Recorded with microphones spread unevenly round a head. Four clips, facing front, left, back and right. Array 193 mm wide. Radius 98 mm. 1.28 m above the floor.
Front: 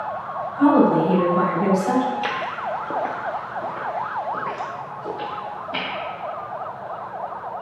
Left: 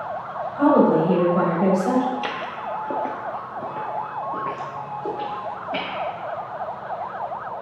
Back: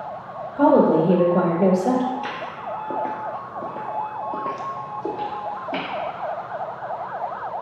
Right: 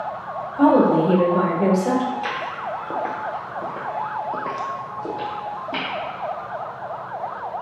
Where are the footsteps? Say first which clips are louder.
Right 1 dB, front 3 dB; 30° left, 1.6 m; by 5.9 s 145° right, 3 m.